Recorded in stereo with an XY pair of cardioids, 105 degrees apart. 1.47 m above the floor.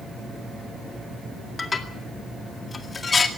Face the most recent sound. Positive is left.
turn(degrees=35)